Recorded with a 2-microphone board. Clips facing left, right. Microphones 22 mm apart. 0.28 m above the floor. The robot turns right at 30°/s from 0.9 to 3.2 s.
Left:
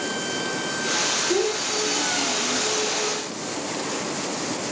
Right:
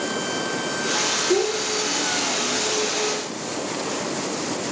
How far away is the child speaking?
About 3.5 m.